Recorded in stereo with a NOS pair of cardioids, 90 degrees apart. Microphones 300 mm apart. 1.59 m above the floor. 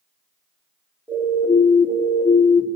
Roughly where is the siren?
Ahead.